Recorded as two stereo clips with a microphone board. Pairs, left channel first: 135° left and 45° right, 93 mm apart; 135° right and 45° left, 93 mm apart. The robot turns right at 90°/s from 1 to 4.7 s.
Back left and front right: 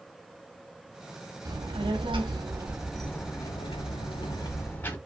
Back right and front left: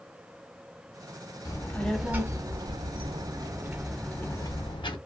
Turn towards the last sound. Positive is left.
turn(degrees=-155)